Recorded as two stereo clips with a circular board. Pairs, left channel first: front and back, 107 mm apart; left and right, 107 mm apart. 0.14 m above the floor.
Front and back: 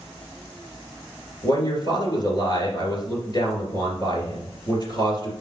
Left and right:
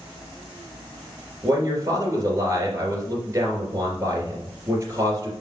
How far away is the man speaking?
About 2.5 m.